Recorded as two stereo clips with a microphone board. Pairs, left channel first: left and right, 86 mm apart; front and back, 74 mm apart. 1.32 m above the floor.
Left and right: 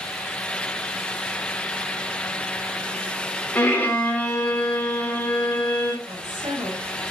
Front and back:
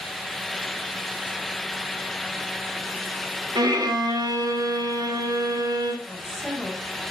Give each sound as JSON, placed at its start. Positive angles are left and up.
{"t": 3.5, "sound": "a violin", "azimuth_deg": 160, "distance_m": 2.0}
{"t": 6.0, "sound": "a woman speaking", "azimuth_deg": -90, "distance_m": 6.0}